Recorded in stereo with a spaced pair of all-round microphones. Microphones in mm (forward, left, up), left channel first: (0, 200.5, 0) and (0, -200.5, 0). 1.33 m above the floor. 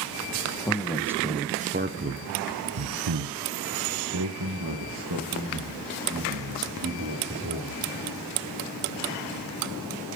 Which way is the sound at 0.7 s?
5° left (ahead or behind).